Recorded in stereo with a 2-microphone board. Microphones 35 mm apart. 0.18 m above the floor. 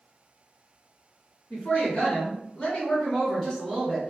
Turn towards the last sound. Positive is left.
turn(degrees=-10)  # may be behind; listen again after turning